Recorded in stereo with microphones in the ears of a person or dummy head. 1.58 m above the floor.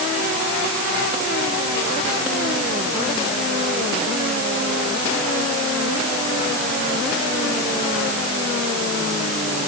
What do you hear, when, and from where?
Only background noise.